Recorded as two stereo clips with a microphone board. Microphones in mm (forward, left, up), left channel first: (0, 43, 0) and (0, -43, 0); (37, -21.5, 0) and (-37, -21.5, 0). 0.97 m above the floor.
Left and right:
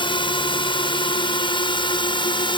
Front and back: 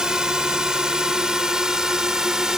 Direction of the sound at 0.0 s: 100° left.